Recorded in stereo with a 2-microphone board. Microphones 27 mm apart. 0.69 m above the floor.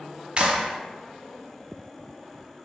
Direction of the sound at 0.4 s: 40° right (ahead or behind).